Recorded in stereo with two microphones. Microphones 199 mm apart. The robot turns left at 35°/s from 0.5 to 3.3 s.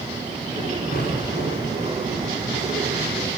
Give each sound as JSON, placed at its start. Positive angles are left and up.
{"t": 0.9, "sound": "an explosion", "azimuth_deg": 135, "distance_m": 9.5}